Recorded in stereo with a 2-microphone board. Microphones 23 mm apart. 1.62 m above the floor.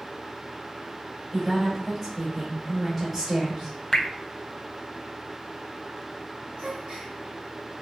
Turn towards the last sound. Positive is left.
turn(degrees=-45)  # may be behind; listen again after turning